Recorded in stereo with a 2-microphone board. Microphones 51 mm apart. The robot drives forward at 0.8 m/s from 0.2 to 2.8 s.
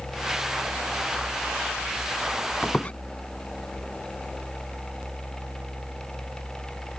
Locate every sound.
2.6 s a squeak: 30° left (ahead or behind); by 2.9 s 25° left (ahead or behind)